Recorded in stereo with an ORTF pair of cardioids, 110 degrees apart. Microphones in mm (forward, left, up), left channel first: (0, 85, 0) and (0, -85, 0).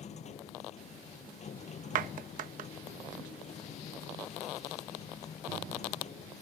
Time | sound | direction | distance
0.0 | a machine running | 45° left | ?
1.9 | a clap | 60° right | ?